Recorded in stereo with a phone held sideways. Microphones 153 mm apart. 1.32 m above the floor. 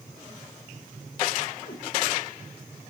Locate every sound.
1.6 s a cat meowing: 80° left, 3.5 m